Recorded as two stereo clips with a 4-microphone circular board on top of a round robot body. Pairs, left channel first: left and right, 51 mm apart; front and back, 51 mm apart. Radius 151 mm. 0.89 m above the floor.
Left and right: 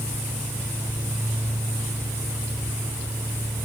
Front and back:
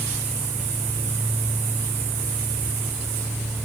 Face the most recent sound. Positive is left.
No sound to turn to.